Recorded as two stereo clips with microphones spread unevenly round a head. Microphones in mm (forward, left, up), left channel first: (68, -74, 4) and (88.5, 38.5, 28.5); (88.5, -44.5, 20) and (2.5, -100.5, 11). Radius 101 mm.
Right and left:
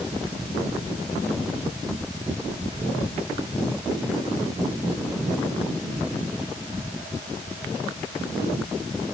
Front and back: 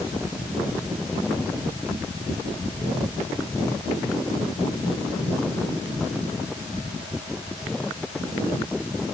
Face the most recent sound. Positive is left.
No sound to turn to.